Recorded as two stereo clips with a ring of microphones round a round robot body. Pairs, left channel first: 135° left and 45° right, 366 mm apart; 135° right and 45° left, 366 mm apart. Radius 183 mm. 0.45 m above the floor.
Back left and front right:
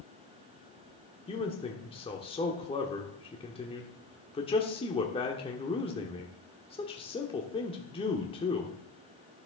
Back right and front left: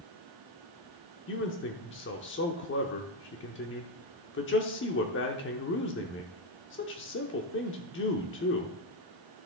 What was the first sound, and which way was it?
A man speaking, 160° right.